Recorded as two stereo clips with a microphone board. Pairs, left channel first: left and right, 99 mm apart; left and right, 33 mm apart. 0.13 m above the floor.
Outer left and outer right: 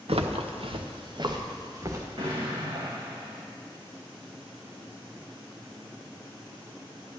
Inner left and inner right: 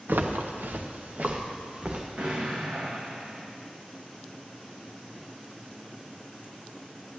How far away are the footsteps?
About 1.6 m.